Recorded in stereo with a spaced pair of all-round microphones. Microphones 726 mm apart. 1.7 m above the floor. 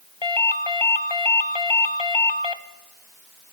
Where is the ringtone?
35° left (ahead or behind), 1.1 m.